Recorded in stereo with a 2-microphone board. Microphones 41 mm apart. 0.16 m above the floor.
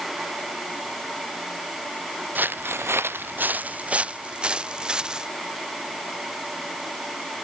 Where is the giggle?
No giggle in this recording.